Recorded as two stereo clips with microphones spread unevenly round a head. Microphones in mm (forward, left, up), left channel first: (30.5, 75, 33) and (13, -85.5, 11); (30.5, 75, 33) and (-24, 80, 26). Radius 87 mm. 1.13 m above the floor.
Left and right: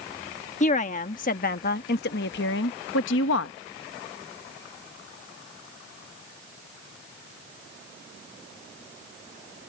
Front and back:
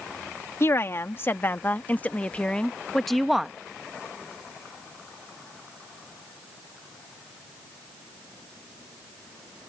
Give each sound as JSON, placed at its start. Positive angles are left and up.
{"t": 0.6, "sound": "a woman speaking", "azimuth_deg": 35}